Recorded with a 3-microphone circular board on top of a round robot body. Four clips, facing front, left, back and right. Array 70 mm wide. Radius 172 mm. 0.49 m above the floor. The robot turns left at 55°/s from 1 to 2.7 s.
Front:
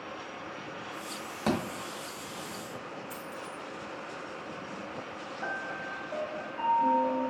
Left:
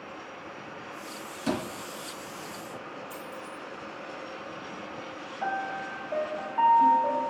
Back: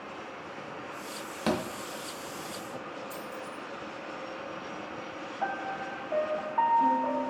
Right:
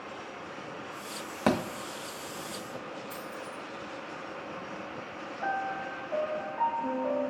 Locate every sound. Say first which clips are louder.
1.5 s a thud: right 3 dB, even; 90° right, 0.8 m; by 1.6 s 100° right, 0.8 m
3.1 s a dropped coin: even, back 1 dB; 40° right, 1.7 m
5.4 s a piano: left 1 dB, back 3 dB; 155° left, 0.6 m